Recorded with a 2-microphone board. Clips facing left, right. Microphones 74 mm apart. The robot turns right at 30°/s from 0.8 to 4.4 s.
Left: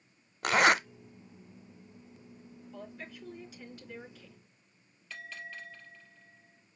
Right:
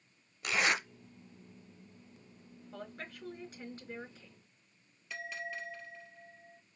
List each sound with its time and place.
0.4 s a zipper: 65° left (ahead or behind), 0.6 m
2.7 s a woman speaking: 65° right, 4.5 m; by 4.4 s 15° right, 4.5 m
5.1 s a bell: 10° right (ahead or behind), 3 m